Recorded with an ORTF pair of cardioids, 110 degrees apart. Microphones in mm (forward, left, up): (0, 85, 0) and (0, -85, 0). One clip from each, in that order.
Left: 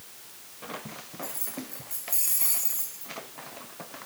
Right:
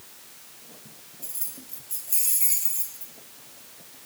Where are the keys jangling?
20° right, 2.5 m.